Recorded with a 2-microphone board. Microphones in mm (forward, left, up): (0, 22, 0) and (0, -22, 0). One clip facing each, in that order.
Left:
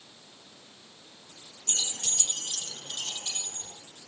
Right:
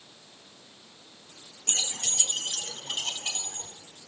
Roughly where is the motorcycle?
No motorcycle in this recording.